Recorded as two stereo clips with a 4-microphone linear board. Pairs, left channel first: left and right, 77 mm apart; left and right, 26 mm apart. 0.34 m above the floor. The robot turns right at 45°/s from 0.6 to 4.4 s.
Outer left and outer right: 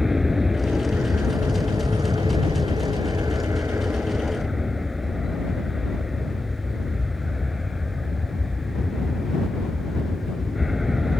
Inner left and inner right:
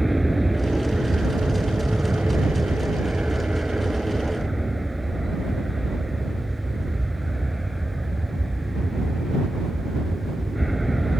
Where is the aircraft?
175° right; by 11.2 s 5° right.